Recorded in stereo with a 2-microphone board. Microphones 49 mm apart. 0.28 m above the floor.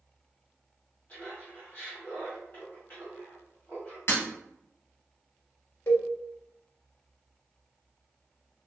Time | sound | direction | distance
1.1 | laughter | 35° left (ahead or behind) | 1.8 m
4.1 | breaking glass | 55° left (ahead or behind) | 1.8 m
5.9 | a cowbell | 60° left (ahead or behind) | 0.7 m